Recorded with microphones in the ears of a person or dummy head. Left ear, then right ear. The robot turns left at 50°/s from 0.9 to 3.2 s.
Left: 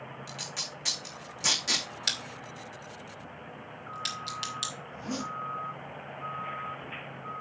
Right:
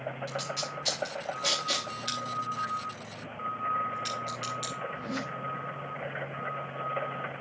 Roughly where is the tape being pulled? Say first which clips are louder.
Even; centre.